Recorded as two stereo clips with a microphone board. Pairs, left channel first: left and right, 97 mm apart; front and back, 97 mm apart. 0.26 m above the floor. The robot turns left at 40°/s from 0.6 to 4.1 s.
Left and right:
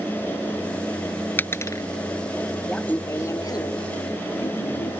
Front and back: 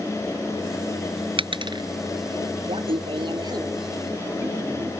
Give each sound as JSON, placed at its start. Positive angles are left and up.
{"t": 1.4, "sound": "a dropped coin", "azimuth_deg": 160}
{"t": 2.7, "sound": "laughter", "azimuth_deg": 170}